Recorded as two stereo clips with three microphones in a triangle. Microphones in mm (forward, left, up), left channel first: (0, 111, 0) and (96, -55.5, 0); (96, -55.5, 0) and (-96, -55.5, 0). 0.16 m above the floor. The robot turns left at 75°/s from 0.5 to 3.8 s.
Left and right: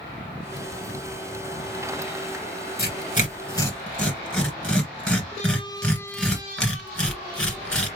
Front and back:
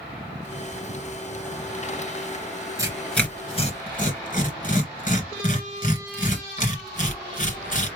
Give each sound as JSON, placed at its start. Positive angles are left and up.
{"t": 2.8, "sound": "tearing paper", "azimuth_deg": 110, "distance_m": 2.5}